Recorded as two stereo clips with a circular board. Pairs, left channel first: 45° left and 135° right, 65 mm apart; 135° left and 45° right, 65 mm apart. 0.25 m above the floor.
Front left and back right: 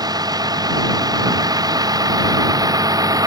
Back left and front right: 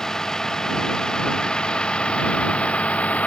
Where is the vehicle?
145° right; by 3.3 s 155° right.